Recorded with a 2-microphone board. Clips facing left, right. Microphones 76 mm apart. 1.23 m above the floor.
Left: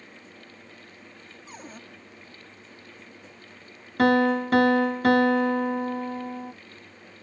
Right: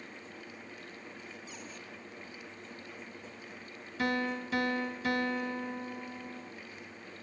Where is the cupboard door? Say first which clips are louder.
Left 4 dB; 45° left (ahead or behind).